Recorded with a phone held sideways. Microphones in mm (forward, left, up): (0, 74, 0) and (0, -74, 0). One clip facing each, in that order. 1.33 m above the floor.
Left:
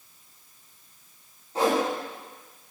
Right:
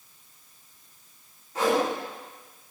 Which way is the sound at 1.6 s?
30° left (ahead or behind).